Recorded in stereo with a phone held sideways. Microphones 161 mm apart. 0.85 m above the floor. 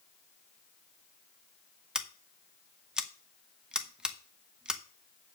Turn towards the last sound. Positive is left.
turn(degrees=-5)  # may be behind; listen again after turning